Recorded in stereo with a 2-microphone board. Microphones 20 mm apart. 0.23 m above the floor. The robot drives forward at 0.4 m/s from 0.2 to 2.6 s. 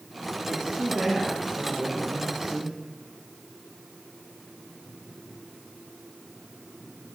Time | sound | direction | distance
0.5 | a woman speaking | 40° right (ahead or behind) | 6.5 m